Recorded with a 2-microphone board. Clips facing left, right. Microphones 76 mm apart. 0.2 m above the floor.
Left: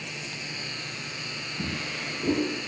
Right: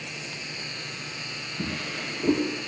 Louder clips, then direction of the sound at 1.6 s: Right 1 dB; 25° right (ahead or behind).